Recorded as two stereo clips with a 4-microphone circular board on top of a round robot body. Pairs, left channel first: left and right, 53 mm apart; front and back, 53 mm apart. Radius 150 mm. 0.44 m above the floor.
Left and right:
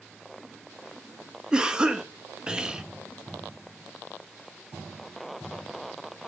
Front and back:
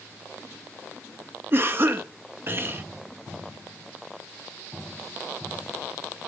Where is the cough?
160° right, 1.0 m.